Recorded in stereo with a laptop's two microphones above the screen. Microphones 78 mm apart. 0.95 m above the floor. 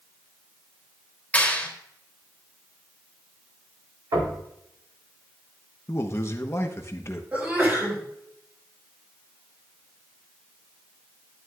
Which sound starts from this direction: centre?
A clap, at 1.3 s.